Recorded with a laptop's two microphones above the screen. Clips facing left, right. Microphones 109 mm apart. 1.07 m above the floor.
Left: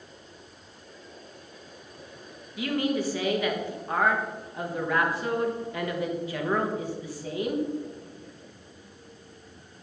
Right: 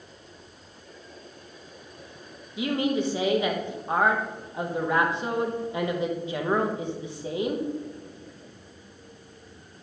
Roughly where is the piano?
I don't hear a piano.